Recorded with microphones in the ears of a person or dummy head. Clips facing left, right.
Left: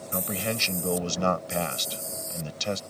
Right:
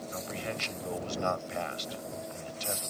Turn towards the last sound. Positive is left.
turn(degrees=75)  # may be behind; listen again after turning